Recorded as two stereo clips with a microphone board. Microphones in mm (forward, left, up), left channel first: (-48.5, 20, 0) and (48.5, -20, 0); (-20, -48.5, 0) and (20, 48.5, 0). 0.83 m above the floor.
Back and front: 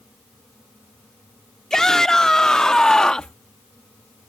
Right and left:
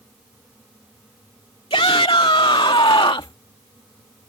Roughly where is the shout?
Behind right.